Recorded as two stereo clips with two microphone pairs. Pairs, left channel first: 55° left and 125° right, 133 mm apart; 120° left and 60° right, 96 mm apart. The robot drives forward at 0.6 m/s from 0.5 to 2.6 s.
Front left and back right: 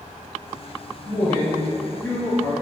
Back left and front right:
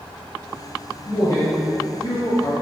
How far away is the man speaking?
About 1.5 m.